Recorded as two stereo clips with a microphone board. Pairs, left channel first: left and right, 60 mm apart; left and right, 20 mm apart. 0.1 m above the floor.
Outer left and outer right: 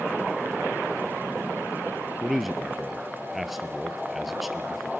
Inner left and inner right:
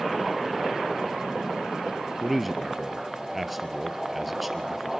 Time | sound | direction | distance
2.2 | a man speaking | centre (ahead or behind) | 1.5 m